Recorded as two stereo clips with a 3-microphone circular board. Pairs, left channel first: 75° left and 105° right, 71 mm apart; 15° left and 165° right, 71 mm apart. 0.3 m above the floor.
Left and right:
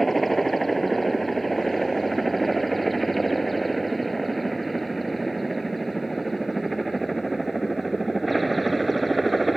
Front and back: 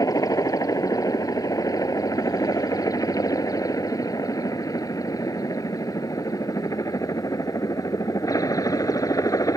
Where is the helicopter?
15° right.